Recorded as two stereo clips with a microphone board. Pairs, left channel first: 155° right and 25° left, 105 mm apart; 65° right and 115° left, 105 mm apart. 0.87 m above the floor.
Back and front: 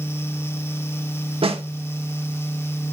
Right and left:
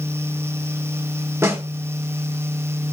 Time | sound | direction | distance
1.4 | a snare drum | 50° left | 1.6 m